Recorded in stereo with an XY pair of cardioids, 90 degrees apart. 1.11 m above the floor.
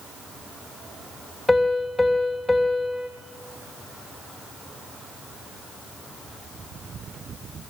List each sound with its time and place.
1.5 s a piano: 10° left, 3 m